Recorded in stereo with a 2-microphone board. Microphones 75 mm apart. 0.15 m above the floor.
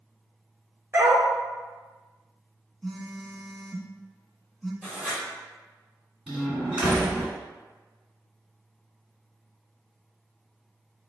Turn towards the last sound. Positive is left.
turn(degrees=-15)  # may be behind; listen again after turning